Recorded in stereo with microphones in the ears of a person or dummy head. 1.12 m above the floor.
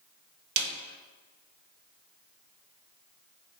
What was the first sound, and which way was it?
A snare drum, 60° right (ahead or behind).